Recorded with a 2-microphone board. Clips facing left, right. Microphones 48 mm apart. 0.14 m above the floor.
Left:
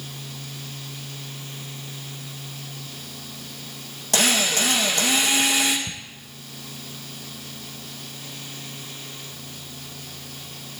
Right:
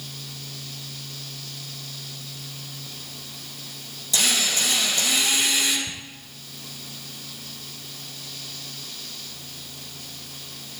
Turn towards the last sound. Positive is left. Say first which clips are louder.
# left 1 dB
turn(degrees=65)  # may be behind; listen again after turning